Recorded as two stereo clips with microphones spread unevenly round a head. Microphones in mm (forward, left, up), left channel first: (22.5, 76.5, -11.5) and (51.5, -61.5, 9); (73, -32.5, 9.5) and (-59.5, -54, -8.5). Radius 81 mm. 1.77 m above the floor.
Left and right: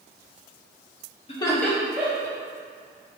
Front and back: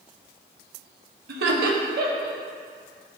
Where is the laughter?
160° left, 0.6 m; by 2.4 s 155° right, 1.2 m.